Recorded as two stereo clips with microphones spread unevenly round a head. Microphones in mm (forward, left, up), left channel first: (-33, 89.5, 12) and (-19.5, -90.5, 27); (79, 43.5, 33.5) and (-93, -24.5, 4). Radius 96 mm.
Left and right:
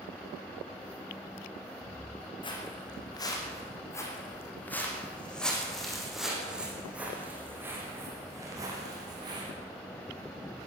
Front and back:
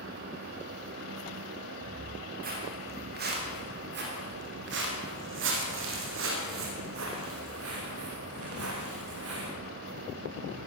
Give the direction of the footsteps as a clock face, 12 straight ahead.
7 o'clock.